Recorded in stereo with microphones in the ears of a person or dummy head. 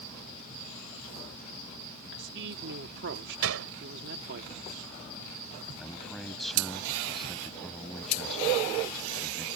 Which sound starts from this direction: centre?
A man speaking, at 5.8 s.